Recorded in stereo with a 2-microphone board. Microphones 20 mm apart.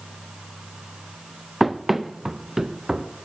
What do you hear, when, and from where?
1.6 s running footsteps: 5° right (ahead or behind), 0.9 m; by 3.1 s 25° right (ahead or behind), 1.6 m